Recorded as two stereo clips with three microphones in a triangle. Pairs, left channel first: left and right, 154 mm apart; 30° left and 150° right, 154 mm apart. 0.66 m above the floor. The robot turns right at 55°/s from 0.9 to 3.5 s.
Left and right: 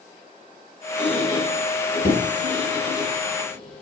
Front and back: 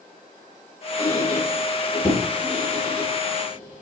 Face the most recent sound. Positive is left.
turn(degrees=175)